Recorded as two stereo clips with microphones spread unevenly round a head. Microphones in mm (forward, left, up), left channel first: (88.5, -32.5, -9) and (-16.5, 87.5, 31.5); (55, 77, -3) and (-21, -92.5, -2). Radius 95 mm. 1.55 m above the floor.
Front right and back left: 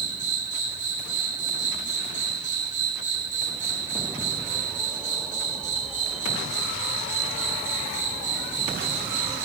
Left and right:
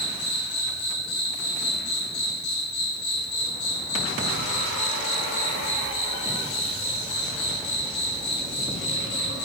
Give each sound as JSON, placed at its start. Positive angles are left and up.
{"t": 0.0, "sound": "an insect", "azimuth_deg": 100, "distance_m": 4.0}